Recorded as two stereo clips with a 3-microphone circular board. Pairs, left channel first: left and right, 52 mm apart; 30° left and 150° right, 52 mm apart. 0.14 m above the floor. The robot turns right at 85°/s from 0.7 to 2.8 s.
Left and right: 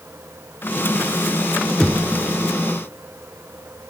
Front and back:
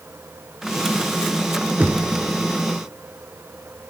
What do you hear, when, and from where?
1.8 s knocking: 165° left, 1.0 m; by 2.1 s 170° right, 1.0 m